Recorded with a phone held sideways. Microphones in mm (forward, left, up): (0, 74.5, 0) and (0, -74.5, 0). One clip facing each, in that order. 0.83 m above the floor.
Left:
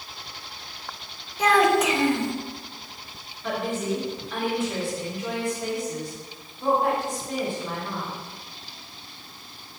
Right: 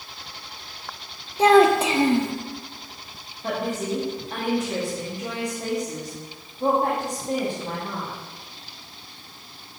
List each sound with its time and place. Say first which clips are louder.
1.4 s a child speaking: right 4 dB; 30° right (ahead or behind), 0.8 m
3.4 s a woman speaking: right 1 dB; 35° right (ahead or behind), 1.7 m